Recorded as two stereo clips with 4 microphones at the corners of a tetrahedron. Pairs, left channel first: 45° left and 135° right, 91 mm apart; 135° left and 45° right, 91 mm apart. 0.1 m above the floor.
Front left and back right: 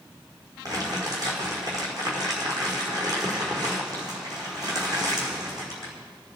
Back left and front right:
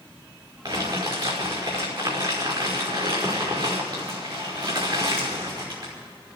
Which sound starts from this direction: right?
Crumpling, at 0.7 s.